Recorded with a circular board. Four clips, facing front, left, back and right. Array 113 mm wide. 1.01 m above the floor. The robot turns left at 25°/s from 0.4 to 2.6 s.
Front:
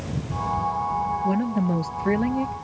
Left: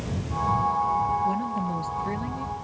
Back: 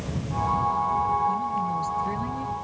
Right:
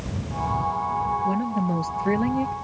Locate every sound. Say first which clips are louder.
1.2 s a woman speaking: right 2 dB, front 2 dB; 15° right; by 2.5 s 50° right